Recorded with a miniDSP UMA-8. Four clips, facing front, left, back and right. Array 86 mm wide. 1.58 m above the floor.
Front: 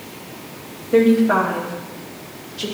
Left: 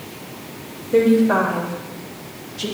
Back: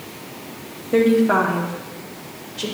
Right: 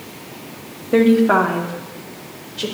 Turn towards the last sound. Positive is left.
turn(degrees=-105)